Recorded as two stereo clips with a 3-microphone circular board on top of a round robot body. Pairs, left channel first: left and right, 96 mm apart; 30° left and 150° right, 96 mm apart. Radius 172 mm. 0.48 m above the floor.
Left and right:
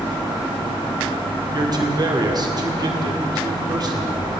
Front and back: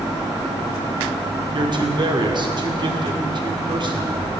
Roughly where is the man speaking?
Behind right.